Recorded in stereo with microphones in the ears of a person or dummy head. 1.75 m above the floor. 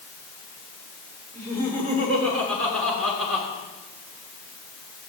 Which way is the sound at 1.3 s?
10° left (ahead or behind).